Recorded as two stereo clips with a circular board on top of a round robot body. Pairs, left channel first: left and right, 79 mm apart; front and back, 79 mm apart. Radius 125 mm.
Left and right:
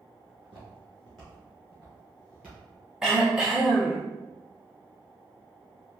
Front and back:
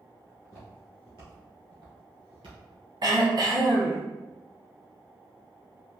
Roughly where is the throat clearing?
Behind.